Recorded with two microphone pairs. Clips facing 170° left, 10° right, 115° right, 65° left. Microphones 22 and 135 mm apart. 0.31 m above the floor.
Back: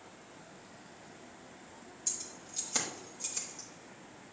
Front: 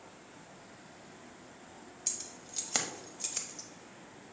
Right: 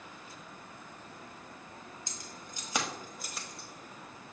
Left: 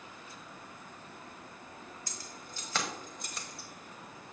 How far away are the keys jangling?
About 1.5 m.